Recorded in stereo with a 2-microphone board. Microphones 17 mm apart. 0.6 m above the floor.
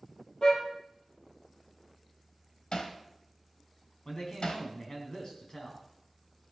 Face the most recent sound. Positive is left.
turn(degrees=45)  # may be behind; listen again after turning